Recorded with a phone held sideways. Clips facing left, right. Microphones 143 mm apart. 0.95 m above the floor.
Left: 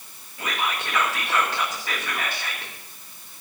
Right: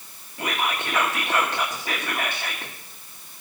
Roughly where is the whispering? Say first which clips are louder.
Right 1 dB; centre.